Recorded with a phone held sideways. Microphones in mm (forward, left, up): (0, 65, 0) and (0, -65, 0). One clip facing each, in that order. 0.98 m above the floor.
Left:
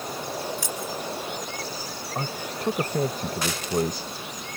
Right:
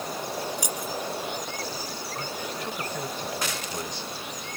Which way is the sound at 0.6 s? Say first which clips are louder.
Even; 20° right (ahead or behind).